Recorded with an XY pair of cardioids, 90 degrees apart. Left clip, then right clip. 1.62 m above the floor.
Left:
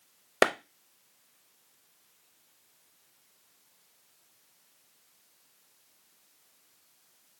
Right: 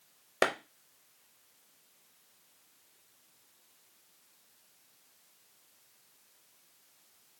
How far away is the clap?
About 0.6 m.